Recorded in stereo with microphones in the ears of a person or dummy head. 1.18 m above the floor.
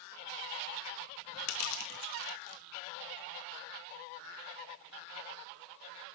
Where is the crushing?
75° left (ahead or behind), 2 m.